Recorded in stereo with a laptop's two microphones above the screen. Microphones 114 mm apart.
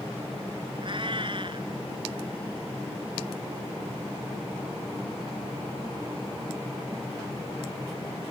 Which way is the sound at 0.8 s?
50° right (ahead or behind).